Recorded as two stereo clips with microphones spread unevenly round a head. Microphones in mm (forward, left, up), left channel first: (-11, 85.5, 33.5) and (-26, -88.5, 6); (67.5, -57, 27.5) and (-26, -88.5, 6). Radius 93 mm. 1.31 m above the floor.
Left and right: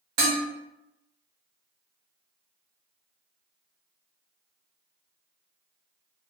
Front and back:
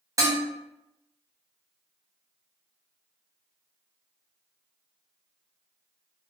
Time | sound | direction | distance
0.2 | dishes clattering | 100° right | 1.1 m